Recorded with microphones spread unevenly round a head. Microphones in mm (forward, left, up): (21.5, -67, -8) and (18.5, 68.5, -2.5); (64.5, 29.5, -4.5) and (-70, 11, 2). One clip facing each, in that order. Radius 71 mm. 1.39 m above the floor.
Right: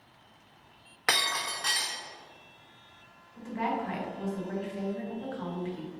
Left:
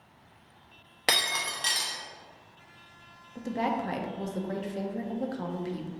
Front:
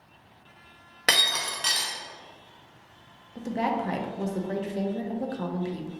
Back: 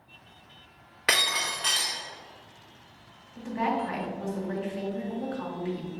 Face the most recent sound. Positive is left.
turn(degrees=50)